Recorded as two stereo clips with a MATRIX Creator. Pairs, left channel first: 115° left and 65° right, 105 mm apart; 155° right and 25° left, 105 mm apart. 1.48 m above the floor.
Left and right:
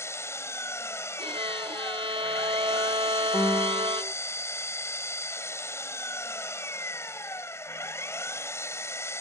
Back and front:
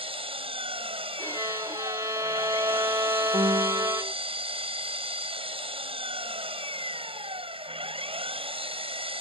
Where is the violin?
35° right.